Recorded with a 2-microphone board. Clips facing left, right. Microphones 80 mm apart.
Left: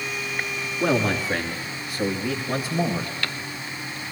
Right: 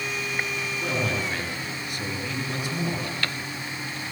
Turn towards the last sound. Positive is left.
turn(degrees=30)  # may be behind; listen again after turning